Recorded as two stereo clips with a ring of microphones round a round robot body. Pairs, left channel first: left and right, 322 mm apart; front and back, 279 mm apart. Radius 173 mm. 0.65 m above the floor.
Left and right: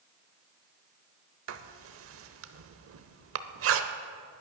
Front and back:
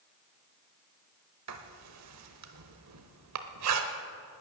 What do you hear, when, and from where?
1.5 s writing: 140° right, 0.8 m